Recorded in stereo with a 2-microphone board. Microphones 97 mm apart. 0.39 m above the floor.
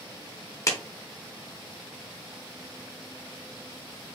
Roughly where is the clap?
Left.